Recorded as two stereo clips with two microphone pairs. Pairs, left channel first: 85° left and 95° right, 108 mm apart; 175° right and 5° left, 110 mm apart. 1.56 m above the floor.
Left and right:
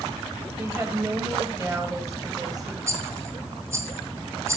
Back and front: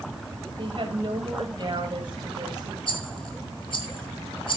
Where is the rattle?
155° right, 2 m.